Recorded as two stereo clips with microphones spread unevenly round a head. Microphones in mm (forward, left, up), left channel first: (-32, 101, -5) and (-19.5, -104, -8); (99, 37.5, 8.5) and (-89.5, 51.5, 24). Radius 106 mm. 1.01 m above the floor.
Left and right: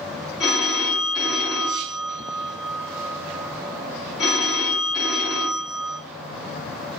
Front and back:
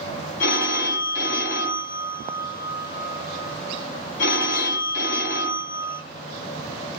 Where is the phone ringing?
Straight ahead, 2.5 m.